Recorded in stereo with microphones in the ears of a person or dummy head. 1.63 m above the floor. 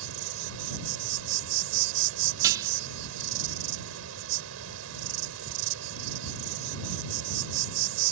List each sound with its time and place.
0.0 s an insect: 80° right
2.4 s dishes clattering: 10° right (ahead or behind)